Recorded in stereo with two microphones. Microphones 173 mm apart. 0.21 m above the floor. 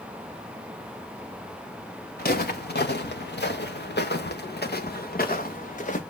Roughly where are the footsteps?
Left.